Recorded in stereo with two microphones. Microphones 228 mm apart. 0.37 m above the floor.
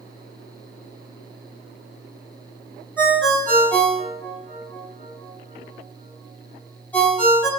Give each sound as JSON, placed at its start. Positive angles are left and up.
{"t": 3.0, "sound": "a ringtone", "side_deg": 10, "distance_m": 1.6}